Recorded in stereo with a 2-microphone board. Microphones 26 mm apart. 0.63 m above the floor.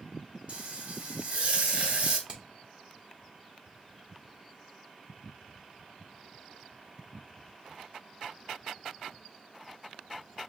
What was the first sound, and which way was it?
Frying, 55° right (ahead or behind).